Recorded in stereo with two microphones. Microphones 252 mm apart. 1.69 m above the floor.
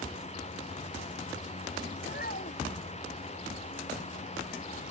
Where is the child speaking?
35° left (ahead or behind).